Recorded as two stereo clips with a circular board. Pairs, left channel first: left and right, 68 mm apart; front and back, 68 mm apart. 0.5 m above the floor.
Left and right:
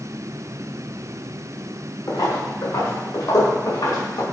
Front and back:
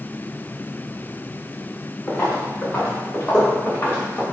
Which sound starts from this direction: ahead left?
Footsteps, at 2.1 s.